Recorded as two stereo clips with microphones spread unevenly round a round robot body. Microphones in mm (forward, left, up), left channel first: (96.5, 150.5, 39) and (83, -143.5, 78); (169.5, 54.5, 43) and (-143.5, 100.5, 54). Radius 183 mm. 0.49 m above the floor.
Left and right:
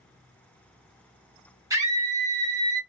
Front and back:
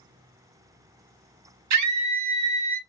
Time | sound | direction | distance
1.7 | a scream | 175° right | 1.0 m